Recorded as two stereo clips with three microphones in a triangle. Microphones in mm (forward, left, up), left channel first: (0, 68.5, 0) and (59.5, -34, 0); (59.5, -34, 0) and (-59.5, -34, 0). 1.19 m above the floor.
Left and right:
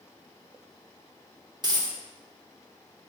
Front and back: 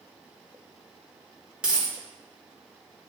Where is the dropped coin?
100° right, 0.8 m.